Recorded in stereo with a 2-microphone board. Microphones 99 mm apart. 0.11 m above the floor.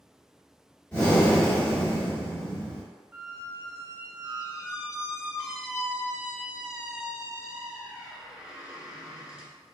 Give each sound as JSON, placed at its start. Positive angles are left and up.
{"t": 0.9, "sound": "breathing", "side_deg": 15, "distance_m": 1.7}
{"t": 3.1, "sound": "a squeak", "side_deg": -10, "distance_m": 0.5}